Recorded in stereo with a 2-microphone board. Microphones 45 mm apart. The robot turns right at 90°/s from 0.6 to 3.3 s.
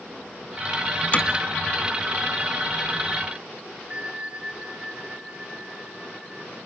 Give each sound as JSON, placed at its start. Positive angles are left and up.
{"t": 1.1, "sound": "hammering", "side_deg": 30, "distance_m": 3.0}
{"t": 3.9, "sound": "a bell", "side_deg": -25, "distance_m": 4.0}